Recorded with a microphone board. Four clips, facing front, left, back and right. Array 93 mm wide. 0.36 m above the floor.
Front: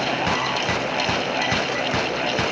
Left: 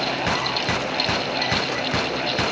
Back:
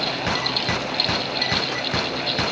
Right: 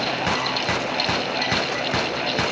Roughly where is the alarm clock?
I don't hear an alarm clock.